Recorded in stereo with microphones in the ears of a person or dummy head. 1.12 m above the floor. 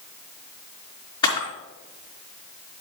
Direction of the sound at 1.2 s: 20° left (ahead or behind).